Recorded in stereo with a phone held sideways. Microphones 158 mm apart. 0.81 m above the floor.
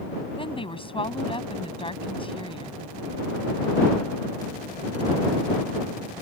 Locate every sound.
0.4 s a woman speaking: 35° left (ahead or behind)